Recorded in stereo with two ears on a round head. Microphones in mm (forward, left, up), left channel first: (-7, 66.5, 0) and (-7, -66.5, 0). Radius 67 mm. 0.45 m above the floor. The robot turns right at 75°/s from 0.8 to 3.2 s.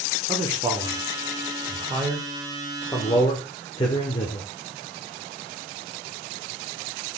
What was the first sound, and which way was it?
A man speaking, 30° right (ahead or behind).